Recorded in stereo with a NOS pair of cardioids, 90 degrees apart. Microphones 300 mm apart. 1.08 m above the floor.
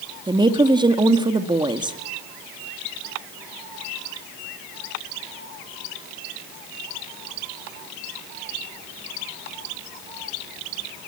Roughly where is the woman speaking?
Ahead.